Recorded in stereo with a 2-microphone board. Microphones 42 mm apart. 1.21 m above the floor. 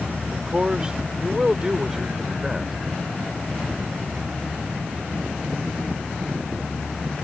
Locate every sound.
0.3 s a man speaking: 20° right (ahead or behind); by 2.8 s 5° right (ahead or behind)